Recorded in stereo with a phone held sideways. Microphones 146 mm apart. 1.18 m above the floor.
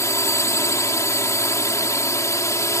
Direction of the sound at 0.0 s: 20° left (ahead or behind).